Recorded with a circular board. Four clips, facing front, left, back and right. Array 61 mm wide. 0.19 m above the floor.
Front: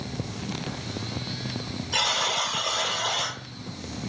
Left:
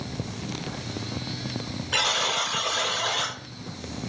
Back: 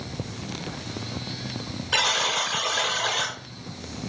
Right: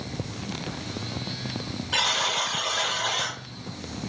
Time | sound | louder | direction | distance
1.9 | a buzzer | even, back 2 dB | 170° left | 1.0 m